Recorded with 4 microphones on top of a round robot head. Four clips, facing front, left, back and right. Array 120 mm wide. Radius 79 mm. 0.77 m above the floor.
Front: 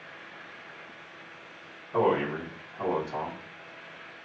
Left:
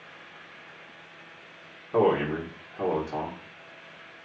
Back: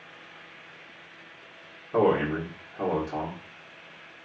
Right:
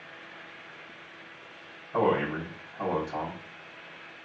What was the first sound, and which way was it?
A man speaking, 120° left.